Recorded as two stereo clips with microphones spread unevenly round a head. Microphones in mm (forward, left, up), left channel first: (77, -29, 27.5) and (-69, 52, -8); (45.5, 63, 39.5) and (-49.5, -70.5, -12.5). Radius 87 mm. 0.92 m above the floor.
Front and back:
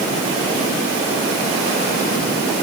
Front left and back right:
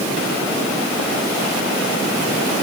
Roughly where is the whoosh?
No whoosh in this recording.